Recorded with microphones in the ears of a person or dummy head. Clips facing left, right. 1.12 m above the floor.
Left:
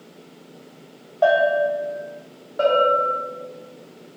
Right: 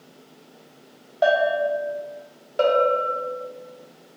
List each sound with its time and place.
1.2 s a bell: 15° right (ahead or behind), 0.7 m
2.6 s a bell: 35° right (ahead or behind), 0.7 m